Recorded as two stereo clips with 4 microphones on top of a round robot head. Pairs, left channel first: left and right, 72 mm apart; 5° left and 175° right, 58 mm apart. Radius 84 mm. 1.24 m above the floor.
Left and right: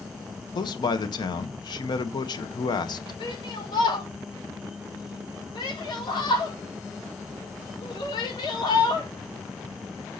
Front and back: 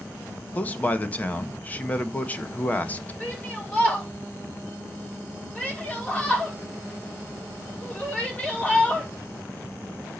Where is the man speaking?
70° left, 1.1 m.